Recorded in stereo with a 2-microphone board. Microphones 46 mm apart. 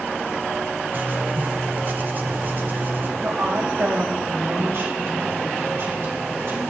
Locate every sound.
0.9 s writing: 40° right (ahead or behind), 0.9 m
3.2 s a woman speaking: 60° right (ahead or behind), 4 m